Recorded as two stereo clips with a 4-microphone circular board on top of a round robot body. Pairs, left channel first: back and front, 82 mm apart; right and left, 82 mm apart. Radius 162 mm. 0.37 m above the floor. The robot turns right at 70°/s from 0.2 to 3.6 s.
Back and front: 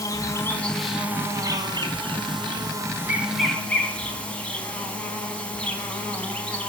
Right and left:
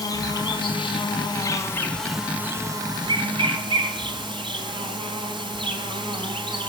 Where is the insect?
135° right, 4 m; by 6.7 s 105° left, 4 m.